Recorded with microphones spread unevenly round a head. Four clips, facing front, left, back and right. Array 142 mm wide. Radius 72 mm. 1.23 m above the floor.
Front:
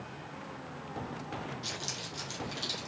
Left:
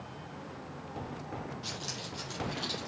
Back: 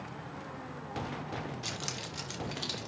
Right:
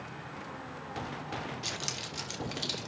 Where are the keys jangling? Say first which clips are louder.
Right 1 dB, back 1 dB; 110° right, 3 m; by 2.9 s 100° right, 4 m.